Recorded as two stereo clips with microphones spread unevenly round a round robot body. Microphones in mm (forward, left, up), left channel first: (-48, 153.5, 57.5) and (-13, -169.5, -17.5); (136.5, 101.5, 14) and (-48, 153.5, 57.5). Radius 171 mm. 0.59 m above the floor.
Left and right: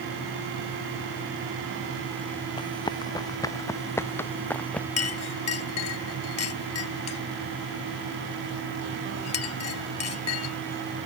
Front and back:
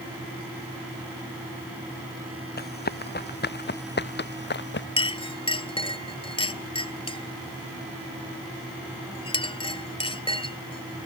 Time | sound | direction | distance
2.6 | running footsteps | 20° left | ?
5.0 | a clink | 50° left | ?